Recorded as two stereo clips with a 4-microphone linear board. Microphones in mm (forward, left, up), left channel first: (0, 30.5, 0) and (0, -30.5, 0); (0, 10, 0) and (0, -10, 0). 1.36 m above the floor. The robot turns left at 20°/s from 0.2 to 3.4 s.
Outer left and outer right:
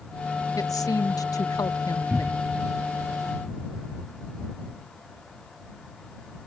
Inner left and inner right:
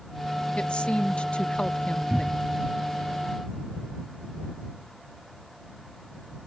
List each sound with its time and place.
0.6 s a woman speaking: 110° left; by 2.4 s 75° left
2.1 s a cupboard door: 40° right (ahead or behind); by 2.6 s 50° right (ahead or behind)